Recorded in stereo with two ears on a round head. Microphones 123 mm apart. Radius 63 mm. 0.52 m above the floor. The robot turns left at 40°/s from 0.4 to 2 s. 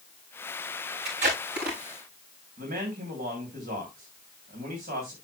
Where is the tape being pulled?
45° right (ahead or behind), 8 m; by 1.8 s 75° right (ahead or behind), 8 m.